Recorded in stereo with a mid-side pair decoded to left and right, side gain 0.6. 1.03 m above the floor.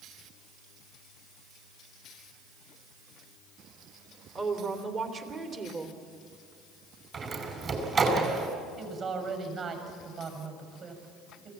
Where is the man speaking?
45° right, 6.5 m.